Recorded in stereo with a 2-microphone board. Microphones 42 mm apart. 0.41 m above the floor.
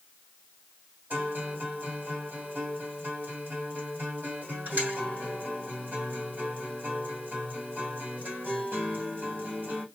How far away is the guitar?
About 2.5 m.